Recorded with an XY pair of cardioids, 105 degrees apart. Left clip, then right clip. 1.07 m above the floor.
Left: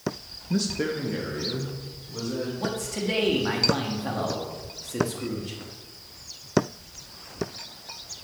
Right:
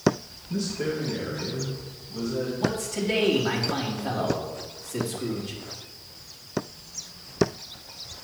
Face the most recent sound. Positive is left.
turn(degrees=10)